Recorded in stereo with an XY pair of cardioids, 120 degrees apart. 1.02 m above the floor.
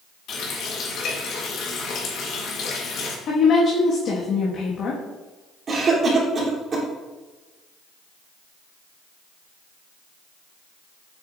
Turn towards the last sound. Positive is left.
turn(degrees=-40)